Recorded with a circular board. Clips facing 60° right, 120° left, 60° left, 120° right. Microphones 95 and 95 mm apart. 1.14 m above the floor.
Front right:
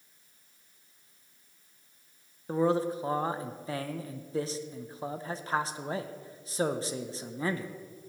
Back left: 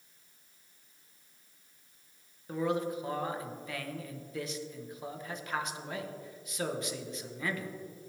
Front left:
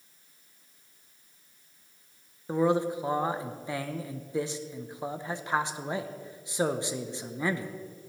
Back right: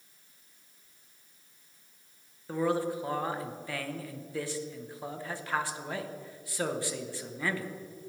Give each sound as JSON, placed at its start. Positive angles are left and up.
{"t": 2.5, "sound": "a man speaking", "azimuth_deg": -5, "distance_m": 0.8}